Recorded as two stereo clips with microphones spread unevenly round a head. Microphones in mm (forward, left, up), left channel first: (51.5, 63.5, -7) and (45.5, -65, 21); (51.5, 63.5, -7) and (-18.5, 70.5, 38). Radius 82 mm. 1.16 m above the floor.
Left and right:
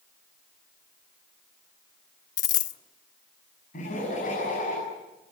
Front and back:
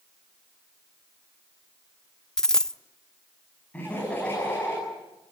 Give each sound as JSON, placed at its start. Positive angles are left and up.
{"t": 2.4, "sound": "a dropped coin", "azimuth_deg": 110, "distance_m": 0.7}
{"t": 3.7, "sound": "laughter", "azimuth_deg": 70, "distance_m": 10.0}